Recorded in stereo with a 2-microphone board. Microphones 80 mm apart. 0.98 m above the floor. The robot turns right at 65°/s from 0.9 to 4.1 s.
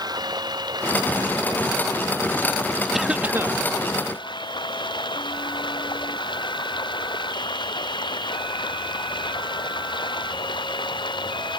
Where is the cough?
175° right; by 3.6 s 130° right.